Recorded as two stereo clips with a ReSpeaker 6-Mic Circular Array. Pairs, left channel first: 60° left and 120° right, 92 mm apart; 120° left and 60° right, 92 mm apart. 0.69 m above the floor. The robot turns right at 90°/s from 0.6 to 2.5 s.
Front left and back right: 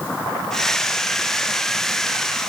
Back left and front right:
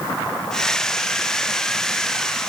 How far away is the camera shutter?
No camera shutter in this recording.